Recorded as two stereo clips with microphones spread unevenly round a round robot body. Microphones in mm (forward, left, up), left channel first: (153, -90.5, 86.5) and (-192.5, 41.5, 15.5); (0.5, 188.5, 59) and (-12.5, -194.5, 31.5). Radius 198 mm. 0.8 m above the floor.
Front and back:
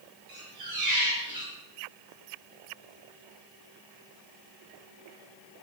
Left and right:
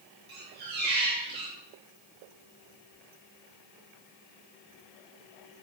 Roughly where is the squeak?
Behind.